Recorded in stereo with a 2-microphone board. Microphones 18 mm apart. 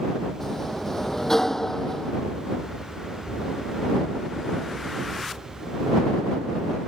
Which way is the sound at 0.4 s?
20° left (ahead or behind).